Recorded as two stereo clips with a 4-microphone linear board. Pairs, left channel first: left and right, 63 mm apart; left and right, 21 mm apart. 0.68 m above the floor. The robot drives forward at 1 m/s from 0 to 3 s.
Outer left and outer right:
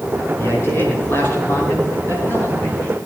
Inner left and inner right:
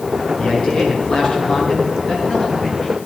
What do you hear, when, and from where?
0.4 s a man speaking: 40° left (ahead or behind), 7.5 m; by 3.0 s 30° left (ahead or behind), 9.5 m